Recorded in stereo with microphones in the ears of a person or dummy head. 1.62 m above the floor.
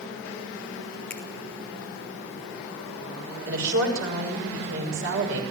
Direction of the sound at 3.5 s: 80° right.